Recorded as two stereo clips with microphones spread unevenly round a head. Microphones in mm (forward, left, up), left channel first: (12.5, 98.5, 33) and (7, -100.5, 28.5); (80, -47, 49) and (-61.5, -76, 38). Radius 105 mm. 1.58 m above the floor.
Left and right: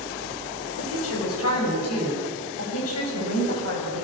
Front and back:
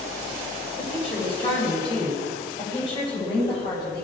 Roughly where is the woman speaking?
Left.